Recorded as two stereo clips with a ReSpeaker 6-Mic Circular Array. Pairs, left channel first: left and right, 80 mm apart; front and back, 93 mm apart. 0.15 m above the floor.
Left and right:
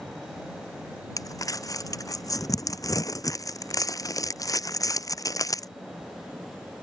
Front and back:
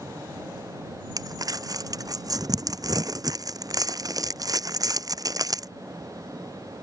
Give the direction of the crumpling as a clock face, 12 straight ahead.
8 o'clock.